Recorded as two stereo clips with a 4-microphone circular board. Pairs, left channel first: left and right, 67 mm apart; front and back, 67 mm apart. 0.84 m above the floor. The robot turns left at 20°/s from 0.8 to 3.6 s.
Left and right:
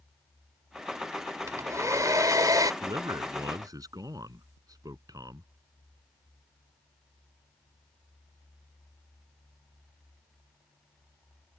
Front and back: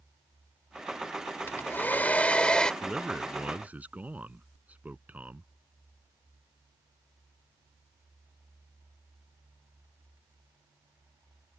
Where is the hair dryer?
50° right; by 2.7 s 75° right.